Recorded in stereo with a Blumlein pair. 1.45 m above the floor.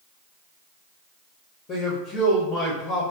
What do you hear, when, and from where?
1.7 s a man speaking: 30° left, 0.6 m